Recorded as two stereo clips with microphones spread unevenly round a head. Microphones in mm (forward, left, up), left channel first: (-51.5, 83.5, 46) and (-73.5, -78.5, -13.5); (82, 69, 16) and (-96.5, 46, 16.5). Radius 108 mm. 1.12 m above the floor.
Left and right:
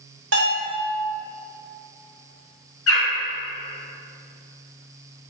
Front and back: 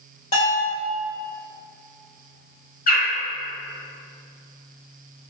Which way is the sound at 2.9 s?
45° left.